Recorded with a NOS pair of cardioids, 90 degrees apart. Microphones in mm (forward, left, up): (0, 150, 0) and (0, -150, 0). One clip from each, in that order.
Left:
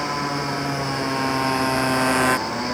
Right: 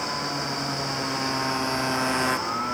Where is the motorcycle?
45° left.